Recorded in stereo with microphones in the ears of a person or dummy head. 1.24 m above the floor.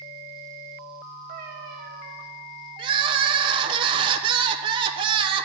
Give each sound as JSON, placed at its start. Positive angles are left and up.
{"t": 1.3, "sound": "a cat meowing", "side_deg": -55, "distance_m": 1.2}
{"t": 2.8, "sound": "crying", "side_deg": -25, "distance_m": 0.7}